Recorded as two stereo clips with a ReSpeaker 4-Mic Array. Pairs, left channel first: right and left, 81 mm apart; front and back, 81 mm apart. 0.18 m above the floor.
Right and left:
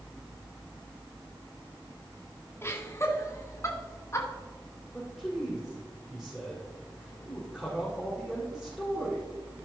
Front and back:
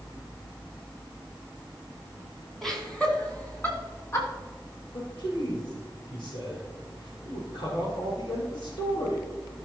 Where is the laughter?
85° right, 1.4 m; by 4.3 s 40° right, 2 m.